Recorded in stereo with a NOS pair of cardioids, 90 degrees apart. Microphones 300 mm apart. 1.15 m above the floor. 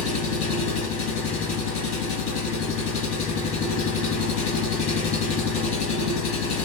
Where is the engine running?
70° left, 1.4 m.